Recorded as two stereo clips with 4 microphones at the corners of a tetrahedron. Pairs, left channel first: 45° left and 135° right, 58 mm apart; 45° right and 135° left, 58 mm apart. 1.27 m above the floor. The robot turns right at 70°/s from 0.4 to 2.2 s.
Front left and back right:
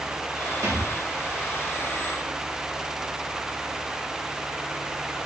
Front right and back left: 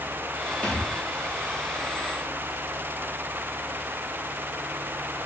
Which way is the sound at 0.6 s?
120° right.